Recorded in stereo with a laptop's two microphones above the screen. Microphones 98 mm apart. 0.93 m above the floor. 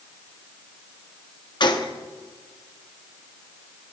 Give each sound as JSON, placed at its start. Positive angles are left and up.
{"t": 1.6, "sound": "a gunshot", "side_deg": 50, "distance_m": 0.9}